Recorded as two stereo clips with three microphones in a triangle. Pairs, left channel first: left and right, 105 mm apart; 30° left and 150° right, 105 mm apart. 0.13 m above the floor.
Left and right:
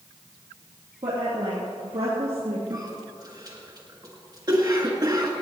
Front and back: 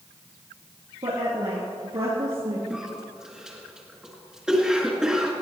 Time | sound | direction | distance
1.0 | a woman speaking | 120° right | 3.5 m
2.7 | a cough | 70° right | 1.8 m